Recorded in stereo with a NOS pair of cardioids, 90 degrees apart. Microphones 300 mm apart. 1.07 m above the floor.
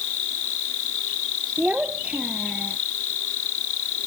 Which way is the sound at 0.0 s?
70° left.